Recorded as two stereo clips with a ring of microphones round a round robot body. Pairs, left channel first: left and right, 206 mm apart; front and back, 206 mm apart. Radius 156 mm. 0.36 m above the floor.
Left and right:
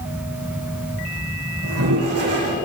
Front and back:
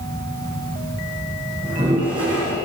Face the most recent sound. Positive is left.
turn(degrees=-105)